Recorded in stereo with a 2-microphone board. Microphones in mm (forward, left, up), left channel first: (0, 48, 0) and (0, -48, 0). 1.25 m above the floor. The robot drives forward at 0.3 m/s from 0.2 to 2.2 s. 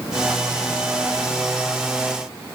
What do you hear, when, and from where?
Only background noise.